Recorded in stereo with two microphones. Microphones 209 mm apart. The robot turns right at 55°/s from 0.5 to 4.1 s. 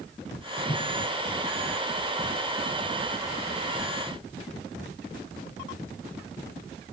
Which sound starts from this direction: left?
A whoosh, at 0.7 s.